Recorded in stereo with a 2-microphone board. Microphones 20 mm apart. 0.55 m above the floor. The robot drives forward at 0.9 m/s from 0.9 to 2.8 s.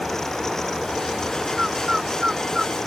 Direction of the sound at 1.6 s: 30° right (ahead or behind).